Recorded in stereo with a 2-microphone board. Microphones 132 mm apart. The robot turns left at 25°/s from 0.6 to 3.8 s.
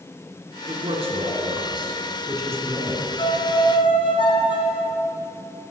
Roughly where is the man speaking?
Right.